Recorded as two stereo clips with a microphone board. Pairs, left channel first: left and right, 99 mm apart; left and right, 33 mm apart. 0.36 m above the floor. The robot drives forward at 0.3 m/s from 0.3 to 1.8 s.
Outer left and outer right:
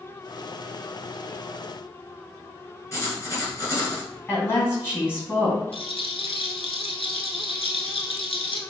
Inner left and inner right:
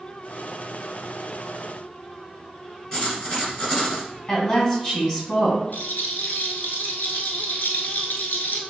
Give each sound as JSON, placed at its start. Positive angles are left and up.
{"t": 2.9, "sound": "writing", "side_deg": 35, "distance_m": 1.5}
{"t": 4.3, "sound": "a woman speaking", "side_deg": 25, "distance_m": 2.0}
{"t": 5.7, "sound": "a rattle", "side_deg": 75, "distance_m": 0.8}